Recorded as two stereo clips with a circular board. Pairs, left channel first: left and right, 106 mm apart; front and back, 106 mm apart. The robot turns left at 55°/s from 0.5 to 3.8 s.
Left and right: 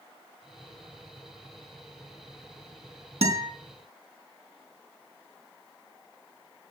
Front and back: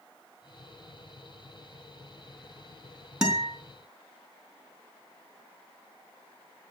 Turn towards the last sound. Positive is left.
turn(degrees=-125)